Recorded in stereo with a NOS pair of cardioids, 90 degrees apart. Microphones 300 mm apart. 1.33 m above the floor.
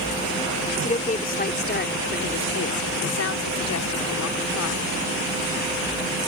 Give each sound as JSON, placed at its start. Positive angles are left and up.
{"t": 0.8, "sound": "a woman speaking", "azimuth_deg": 20}